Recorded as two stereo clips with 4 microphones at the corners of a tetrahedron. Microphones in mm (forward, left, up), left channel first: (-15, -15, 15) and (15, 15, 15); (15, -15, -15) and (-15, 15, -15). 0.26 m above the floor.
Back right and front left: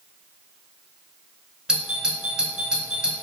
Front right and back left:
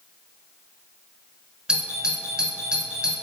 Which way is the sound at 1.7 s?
100° left.